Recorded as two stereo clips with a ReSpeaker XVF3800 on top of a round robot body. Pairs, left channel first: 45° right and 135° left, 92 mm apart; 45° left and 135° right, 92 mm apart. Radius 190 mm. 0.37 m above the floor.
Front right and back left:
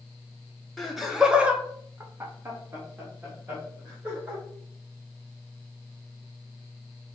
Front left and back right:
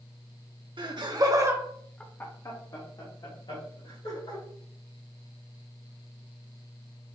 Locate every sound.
0.8 s laughter: 135° right, 1.6 m; by 4.4 s 65° left, 3 m